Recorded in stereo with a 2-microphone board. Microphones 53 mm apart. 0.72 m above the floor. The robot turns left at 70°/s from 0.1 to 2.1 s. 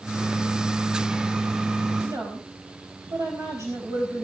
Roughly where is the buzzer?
I don't hear a buzzer.